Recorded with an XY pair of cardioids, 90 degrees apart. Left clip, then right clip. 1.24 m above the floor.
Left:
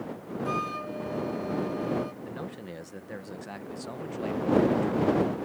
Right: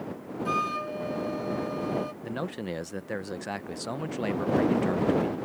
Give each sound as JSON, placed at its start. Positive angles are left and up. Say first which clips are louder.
{"t": 0.5, "sound": "a flute", "louder": "right 3 dB", "azimuth_deg": -35}
{"t": 2.2, "sound": "a man speaking", "louder": "right 5 dB", "azimuth_deg": -60}